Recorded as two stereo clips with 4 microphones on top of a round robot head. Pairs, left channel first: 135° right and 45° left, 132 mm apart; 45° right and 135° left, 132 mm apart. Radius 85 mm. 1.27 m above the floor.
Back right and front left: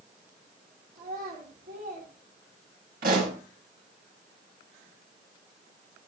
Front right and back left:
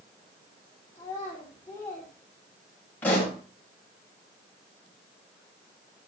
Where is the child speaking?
25° left, 3.5 m.